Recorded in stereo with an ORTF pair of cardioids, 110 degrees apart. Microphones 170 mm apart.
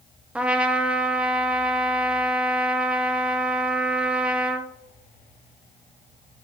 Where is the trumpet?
5° right, 0.7 m.